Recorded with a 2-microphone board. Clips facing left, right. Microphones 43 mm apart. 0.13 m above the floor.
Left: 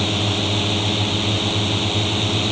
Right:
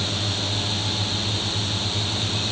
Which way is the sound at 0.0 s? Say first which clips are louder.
Left 6 dB; 40° left (ahead or behind).